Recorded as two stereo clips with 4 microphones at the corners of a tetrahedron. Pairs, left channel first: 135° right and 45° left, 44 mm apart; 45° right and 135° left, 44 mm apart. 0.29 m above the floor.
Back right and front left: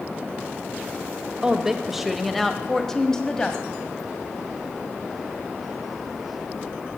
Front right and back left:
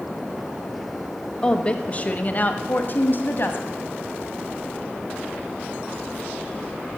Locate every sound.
1.4 s a woman speaking: 10° right, 1.0 m; by 3.8 s 70° right, 1.7 m